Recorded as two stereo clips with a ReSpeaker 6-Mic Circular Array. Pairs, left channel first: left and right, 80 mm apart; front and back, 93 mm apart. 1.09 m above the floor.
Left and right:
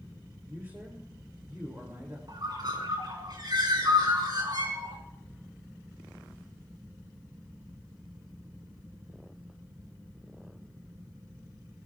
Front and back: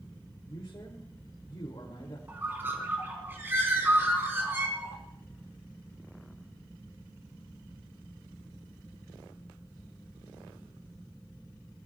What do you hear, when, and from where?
0.5 s a man speaking: 30° right, 3 m
2.3 s a bird: 115° right, 4 m